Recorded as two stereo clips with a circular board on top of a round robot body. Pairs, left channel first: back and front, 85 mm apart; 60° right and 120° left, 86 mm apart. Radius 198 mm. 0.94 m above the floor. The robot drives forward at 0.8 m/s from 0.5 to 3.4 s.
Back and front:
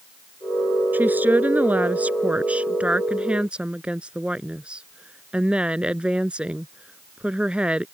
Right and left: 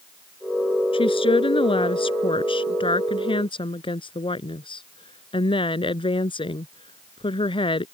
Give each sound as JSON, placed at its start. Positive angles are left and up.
{"t": 0.9, "sound": "a woman speaking", "azimuth_deg": -70}